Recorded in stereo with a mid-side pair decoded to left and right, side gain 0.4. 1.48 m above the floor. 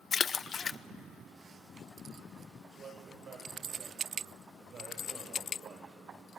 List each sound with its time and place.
0.1 s a splash: 45° left, 0.6 m
2.7 s a man speaking: 65° right, 9 m